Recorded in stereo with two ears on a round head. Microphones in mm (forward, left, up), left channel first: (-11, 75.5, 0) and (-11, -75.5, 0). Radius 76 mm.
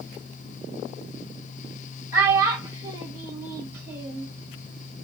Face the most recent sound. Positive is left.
turn(degrees=-15)  # may be behind; listen again after turning